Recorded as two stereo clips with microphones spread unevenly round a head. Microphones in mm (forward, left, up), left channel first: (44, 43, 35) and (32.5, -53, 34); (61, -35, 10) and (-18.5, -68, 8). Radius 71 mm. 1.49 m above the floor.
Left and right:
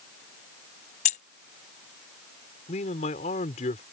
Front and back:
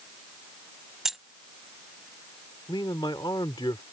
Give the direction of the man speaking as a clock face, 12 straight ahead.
9 o'clock.